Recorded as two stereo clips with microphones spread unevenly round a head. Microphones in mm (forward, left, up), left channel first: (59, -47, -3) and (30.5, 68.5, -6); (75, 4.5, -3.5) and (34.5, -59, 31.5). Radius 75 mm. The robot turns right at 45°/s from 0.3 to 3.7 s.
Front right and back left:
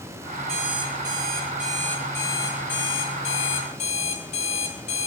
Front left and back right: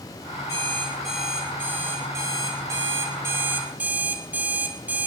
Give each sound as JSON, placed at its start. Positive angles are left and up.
{"t": 0.5, "sound": "an alarm clock", "azimuth_deg": 140, "distance_m": 1.1}